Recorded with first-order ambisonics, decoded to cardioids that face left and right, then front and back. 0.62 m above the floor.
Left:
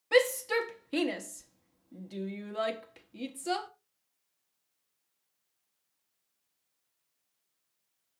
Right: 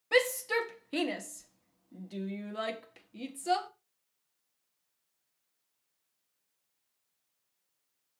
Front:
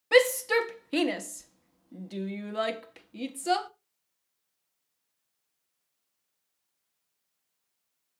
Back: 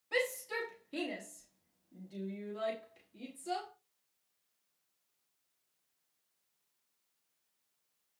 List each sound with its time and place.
0.1 s a shout: 5° left, 0.9 m